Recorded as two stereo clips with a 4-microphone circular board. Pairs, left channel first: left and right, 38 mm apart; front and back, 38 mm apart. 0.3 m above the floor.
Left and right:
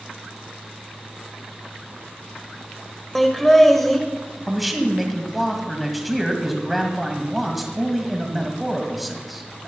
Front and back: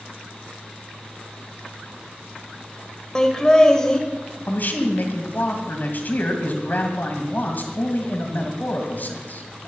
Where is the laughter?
20° left, 1.3 m.